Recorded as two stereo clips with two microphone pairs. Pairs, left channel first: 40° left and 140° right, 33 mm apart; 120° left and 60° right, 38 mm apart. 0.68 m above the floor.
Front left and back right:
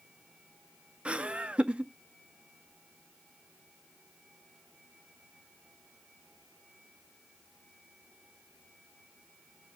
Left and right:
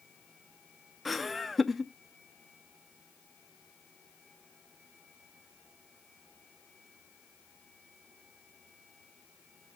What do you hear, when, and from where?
1.1 s laughter: 150° right, 0.5 m